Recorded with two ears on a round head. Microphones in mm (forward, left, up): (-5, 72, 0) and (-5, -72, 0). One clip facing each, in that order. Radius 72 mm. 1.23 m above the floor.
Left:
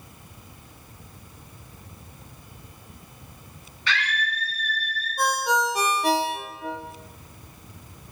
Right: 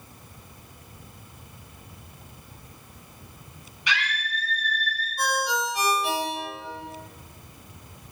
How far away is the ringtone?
About 1.2 m.